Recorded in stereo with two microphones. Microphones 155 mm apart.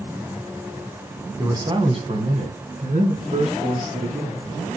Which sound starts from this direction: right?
A man speaking, at 1.4 s.